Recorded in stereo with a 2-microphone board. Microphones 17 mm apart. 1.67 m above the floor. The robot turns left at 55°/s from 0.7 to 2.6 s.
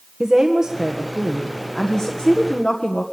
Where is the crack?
No crack in this recording.